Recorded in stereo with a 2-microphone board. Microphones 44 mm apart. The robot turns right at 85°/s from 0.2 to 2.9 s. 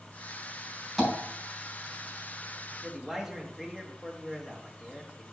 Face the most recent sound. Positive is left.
turn(degrees=-5)  # may be behind; listen again after turning